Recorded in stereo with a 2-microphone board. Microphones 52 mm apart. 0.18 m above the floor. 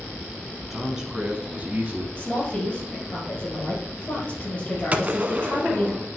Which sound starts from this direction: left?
A woman speaking, at 2.2 s.